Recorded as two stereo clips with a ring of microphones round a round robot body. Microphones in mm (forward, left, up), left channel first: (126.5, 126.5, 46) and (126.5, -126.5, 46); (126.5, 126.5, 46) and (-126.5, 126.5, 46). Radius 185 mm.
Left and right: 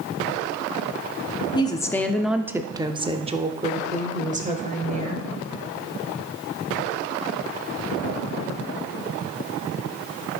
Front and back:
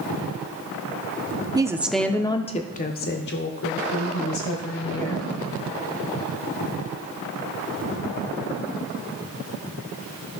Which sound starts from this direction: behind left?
A woman speaking, at 1.6 s.